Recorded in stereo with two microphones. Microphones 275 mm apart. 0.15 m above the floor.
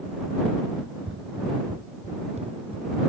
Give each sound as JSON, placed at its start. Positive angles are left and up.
{"t": 0.8, "sound": "running footsteps", "side_deg": -55}